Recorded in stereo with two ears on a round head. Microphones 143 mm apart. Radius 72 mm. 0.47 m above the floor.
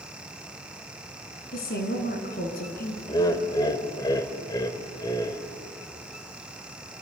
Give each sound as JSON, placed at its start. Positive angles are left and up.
{"t": 1.5, "sound": "a woman speaking", "side_deg": 60, "distance_m": 5.0}
{"t": 3.1, "sound": "laughter", "side_deg": 25, "distance_m": 2.0}